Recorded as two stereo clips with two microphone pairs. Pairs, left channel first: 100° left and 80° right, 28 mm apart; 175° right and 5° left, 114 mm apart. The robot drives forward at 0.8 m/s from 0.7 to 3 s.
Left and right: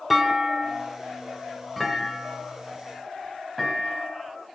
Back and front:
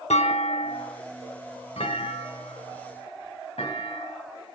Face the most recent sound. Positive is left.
turn(degrees=-175)